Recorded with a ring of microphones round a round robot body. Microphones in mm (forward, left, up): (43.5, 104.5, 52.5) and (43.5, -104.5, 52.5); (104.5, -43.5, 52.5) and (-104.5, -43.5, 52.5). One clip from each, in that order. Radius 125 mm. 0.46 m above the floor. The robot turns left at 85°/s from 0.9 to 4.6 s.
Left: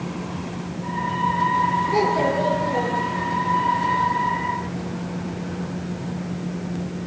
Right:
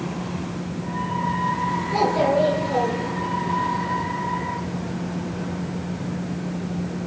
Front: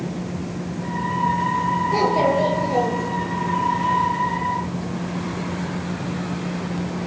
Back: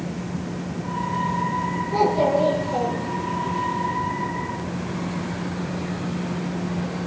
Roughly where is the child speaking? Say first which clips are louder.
Even, back 1 dB; ahead left.